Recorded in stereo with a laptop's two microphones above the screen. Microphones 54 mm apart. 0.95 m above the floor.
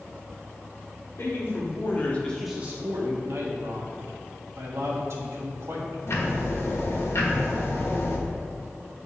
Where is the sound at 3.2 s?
60° right (ahead or behind), 1.7 m.